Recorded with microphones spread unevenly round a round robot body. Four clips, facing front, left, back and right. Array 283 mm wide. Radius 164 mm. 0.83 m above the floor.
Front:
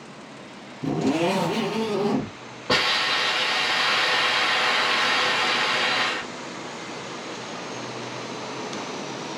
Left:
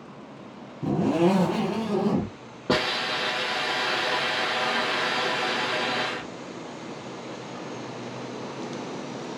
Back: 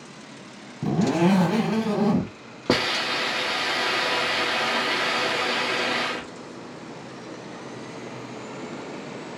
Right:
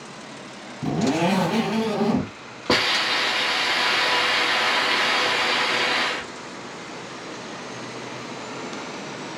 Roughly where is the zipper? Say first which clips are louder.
Even, back 1 dB; behind.